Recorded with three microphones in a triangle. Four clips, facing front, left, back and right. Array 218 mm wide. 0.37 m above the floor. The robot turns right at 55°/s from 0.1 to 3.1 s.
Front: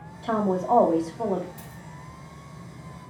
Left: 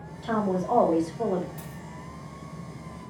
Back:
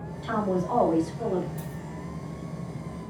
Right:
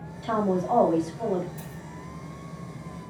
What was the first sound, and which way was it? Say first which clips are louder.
A woman speaking: right 1 dB, front 3 dB; 15° right.